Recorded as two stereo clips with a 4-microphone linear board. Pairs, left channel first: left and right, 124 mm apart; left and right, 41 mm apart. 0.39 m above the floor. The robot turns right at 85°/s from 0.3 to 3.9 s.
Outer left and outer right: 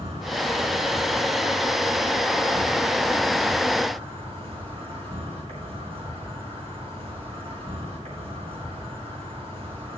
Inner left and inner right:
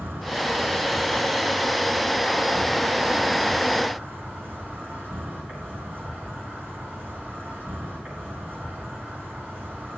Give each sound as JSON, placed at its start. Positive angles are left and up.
{"t": 0.0, "sound": "an insect", "azimuth_deg": -65, "distance_m": 4.5}